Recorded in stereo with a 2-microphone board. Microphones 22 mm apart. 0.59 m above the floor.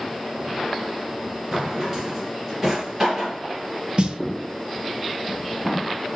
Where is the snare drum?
55° right (ahead or behind), 1.1 m.